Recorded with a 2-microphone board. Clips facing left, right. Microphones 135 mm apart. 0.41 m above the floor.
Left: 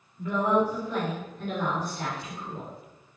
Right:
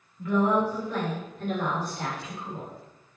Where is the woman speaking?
35° left (ahead or behind), 1.5 m; by 2.7 s 30° right (ahead or behind), 1.5 m.